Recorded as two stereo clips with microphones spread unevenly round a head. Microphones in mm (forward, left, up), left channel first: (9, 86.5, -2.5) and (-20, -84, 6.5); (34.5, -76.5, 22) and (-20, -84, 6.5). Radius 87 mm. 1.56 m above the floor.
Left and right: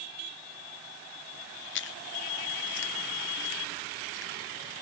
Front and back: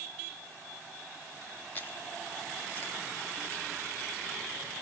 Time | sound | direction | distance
1.8 | chewing | 70° left | 0.8 m